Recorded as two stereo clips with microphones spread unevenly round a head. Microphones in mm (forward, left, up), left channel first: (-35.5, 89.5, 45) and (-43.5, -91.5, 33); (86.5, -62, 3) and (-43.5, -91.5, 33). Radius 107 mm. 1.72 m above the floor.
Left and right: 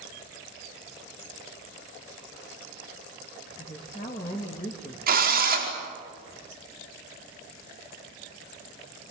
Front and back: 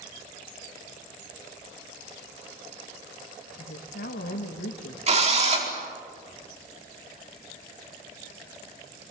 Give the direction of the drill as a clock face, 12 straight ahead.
4 o'clock.